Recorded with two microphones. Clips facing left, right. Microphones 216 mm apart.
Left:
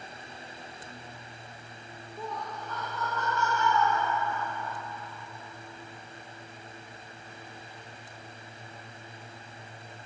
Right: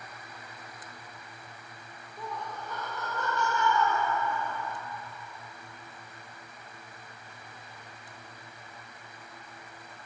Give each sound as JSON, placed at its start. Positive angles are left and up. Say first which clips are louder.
{"t": 2.2, "sound": "laughter", "louder": "left 1 dB", "side_deg": 5, "distance_m": 1.2}